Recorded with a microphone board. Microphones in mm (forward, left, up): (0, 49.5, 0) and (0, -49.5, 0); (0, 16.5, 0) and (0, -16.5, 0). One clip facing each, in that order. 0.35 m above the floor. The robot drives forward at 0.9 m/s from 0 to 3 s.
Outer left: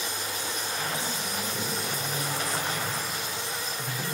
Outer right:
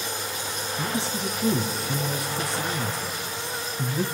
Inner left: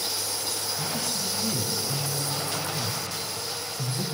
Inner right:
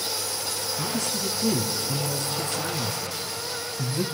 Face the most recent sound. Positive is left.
turn(degrees=-65)  # may be behind; listen again after turning